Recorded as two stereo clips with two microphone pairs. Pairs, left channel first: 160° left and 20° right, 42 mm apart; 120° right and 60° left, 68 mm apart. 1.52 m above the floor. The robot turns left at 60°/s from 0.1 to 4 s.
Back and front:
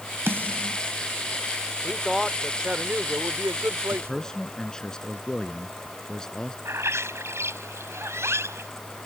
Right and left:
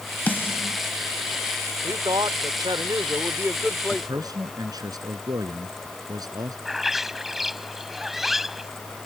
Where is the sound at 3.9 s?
90° left; by 6.5 s 85° left.